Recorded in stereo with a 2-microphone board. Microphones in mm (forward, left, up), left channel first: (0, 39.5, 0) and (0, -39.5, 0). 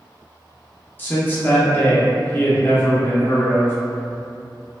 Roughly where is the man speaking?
Left.